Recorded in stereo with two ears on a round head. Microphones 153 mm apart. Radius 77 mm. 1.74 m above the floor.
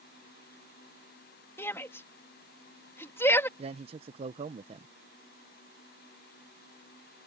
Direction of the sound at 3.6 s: 35° right (ahead or behind).